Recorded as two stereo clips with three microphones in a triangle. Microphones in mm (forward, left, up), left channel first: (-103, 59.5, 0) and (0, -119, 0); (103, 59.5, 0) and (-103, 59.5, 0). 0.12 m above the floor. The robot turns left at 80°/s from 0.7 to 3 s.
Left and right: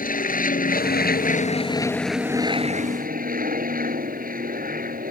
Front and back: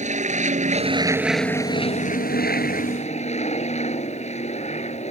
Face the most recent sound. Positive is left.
turn(degrees=-40)